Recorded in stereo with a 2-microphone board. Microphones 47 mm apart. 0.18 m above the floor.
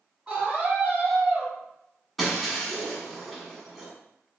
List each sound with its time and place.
0.3 s a scream: 25° right (ahead or behind), 1.1 m
2.2 s breaking glass: 5° right (ahead or behind), 0.8 m